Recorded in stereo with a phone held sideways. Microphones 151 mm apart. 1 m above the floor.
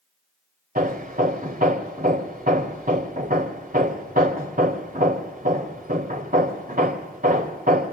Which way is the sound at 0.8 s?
70° right (ahead or behind).